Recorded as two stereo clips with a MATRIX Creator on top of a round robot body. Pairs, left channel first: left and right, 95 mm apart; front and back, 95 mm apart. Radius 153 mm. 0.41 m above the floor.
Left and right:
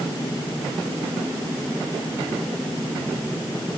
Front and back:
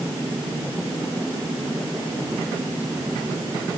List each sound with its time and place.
Only background noise.